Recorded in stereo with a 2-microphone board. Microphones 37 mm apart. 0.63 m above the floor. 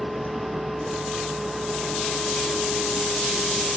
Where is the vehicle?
50° right (ahead or behind); by 3.8 s 5° right (ahead or behind).